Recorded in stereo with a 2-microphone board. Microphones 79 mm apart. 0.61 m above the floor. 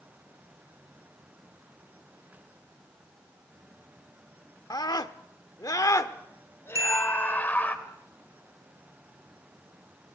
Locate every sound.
4.7 s a scream: 65° left (ahead or behind), 1.3 m; by 7.8 s 20° left (ahead or behind), 2 m
6.8 s a bicycle bell: 45° right (ahead or behind), 5.5 m